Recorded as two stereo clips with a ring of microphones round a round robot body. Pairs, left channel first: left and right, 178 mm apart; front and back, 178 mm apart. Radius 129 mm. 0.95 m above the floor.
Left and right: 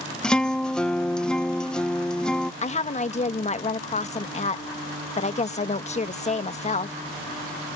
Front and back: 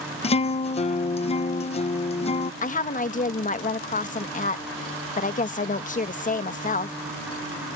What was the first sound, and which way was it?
A guitar, 5° left.